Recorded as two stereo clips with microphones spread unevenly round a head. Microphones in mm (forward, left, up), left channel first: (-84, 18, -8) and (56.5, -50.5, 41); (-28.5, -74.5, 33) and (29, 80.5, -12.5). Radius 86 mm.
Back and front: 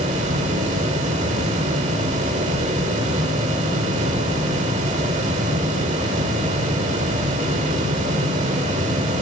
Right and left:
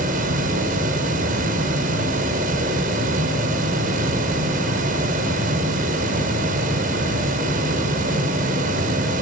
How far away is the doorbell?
I don't hear a doorbell.